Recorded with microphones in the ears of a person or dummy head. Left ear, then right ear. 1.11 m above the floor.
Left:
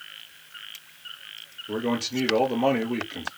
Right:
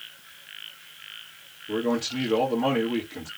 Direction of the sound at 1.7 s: 75° left (ahead or behind).